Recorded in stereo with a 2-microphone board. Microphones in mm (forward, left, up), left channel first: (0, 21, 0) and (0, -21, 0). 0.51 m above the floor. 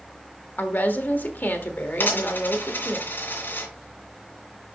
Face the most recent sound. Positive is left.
turn(degrees=55)  # may be behind; listen again after turning